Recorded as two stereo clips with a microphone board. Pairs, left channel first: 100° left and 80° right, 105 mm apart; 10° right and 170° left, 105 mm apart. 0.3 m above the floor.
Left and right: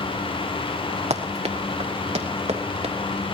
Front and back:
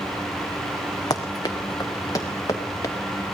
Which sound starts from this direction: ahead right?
Running footsteps, at 1.1 s.